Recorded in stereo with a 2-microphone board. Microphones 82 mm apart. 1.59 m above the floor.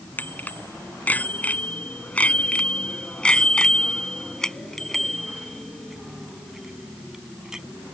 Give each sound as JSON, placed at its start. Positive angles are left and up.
{"t": 0.2, "sound": "a bicycle bell", "side_deg": 20}